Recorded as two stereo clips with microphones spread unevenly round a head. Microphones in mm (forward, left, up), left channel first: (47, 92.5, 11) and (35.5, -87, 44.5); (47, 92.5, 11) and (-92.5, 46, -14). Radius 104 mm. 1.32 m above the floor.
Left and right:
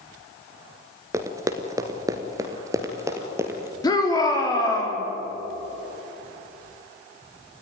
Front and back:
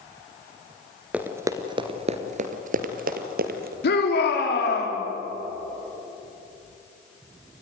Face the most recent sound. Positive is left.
turn(degrees=15)